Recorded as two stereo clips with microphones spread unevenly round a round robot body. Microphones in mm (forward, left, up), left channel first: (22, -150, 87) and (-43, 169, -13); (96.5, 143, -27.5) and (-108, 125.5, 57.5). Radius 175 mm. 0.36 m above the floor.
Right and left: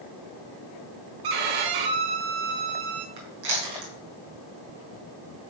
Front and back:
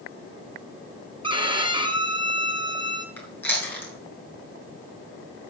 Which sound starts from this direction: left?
Chewing, at 3.2 s.